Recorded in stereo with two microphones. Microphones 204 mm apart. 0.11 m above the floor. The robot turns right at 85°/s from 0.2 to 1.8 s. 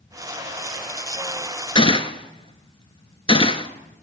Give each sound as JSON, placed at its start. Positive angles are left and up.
{"t": 1.8, "sound": "a gunshot", "side_deg": 25, "distance_m": 0.8}